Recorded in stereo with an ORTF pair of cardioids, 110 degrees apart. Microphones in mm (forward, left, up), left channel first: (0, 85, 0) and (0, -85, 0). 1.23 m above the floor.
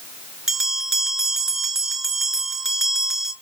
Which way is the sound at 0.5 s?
5° right.